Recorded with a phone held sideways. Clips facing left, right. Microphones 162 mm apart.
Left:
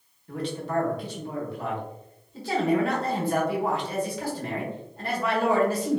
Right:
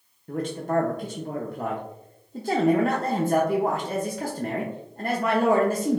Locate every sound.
0.3 s a man speaking: 50° right (ahead or behind), 0.5 m